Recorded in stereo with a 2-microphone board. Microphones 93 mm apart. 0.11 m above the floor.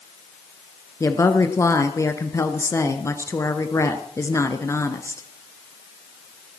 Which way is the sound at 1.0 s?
35° left (ahead or behind).